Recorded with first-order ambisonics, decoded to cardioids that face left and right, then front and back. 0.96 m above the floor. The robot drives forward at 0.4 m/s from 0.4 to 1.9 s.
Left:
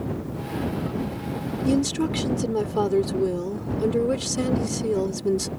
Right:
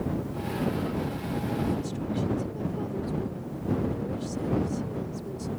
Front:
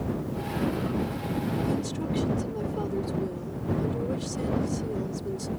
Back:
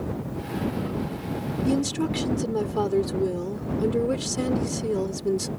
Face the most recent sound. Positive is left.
turn(degrees=125)